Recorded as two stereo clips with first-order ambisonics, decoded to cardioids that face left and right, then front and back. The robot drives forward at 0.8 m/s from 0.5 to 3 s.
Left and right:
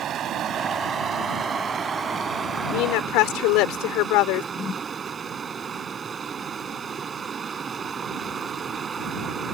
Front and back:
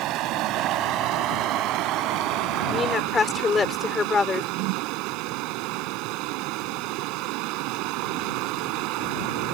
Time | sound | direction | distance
0.0 | running water | 145° right | ?
2.7 | a woman speaking | 65° left | ?
4.5 | a whoosh | 160° left | ?